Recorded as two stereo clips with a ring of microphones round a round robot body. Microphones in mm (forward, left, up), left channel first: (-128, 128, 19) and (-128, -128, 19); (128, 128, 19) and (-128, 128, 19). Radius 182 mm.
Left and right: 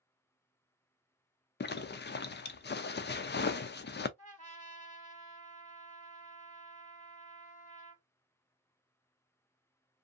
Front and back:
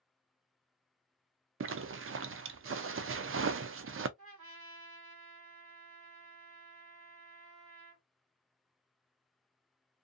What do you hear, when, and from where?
1.6 s a zipper: 140° left, 0.5 m
4.2 s a trumpet: 155° left, 1.9 m